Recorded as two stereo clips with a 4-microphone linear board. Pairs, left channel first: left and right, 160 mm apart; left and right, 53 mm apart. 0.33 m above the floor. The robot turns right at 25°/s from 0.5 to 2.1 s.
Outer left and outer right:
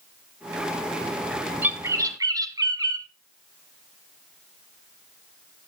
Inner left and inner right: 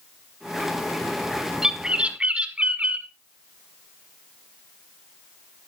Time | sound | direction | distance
1.6 | a bird | 10° right (ahead or behind) | 0.8 m